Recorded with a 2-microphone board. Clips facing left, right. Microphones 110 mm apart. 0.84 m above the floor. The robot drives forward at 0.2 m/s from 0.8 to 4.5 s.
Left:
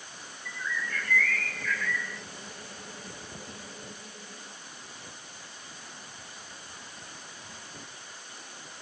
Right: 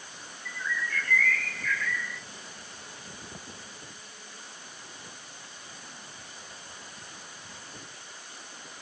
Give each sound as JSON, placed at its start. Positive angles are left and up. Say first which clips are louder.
{"t": 0.5, "sound": "a bird", "louder": "right 1 dB", "side_deg": 5, "distance_m": 1.0}